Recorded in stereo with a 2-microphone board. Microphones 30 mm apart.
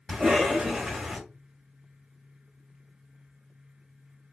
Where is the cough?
20° right (ahead or behind), 1.7 m.